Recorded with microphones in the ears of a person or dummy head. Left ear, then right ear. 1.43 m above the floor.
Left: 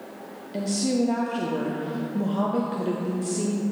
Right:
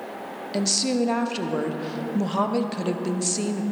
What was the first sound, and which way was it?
A woman speaking, 40° right (ahead or behind).